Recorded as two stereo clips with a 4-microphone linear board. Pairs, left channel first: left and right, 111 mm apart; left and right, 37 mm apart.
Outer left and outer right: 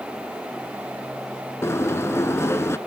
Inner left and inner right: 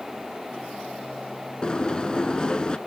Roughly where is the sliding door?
Left.